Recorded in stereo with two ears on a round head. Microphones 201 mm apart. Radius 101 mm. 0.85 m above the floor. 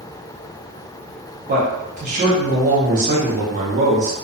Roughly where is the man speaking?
Right.